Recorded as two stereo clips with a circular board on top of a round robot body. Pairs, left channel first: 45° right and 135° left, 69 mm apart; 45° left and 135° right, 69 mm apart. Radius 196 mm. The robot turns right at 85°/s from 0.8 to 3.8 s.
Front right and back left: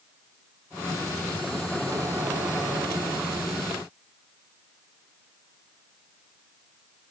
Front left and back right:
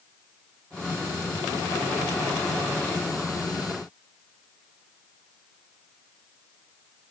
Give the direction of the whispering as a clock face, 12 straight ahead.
I don't hear whispering.